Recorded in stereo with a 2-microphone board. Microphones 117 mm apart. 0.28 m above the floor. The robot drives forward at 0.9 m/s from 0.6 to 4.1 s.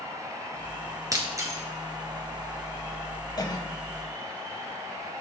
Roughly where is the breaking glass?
Right.